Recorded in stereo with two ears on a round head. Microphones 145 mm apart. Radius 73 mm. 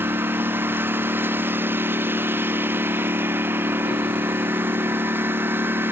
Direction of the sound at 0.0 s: 15° right (ahead or behind).